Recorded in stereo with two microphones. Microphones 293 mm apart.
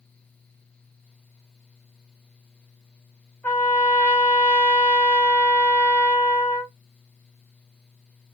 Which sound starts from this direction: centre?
A trumpet, at 3.4 s.